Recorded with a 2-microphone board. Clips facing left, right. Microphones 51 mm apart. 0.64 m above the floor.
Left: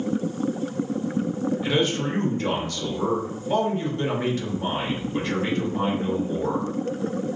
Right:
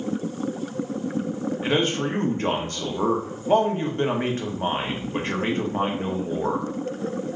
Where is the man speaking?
35° right (ahead or behind), 0.8 m.